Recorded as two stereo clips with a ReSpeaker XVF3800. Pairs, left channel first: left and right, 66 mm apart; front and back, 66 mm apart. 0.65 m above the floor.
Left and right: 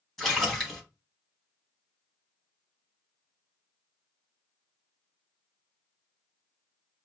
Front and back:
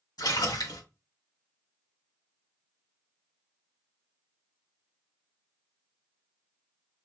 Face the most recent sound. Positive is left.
turn(degrees=5)